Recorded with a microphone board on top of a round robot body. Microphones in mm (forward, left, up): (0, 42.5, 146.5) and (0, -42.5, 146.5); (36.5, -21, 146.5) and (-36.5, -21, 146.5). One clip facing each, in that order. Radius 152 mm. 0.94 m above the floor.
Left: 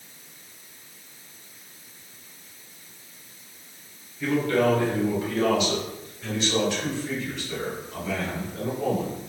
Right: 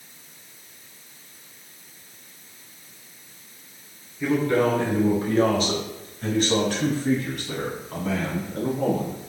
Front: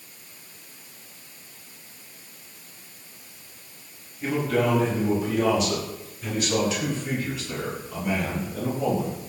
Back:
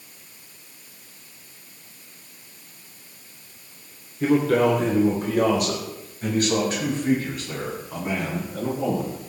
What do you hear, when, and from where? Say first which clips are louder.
4.2 s a man speaking: right 1 dB, back 5 dB; 170° right, 3 m; by 9.2 s 125° right, 9.5 m